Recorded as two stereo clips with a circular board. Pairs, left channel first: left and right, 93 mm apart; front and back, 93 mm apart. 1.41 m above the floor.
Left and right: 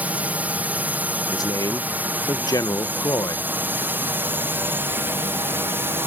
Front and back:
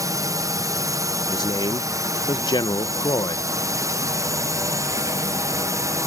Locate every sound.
0.0 s a drone: 155° right; by 6.1 s 145° right
1.3 s a man speaking: 40° left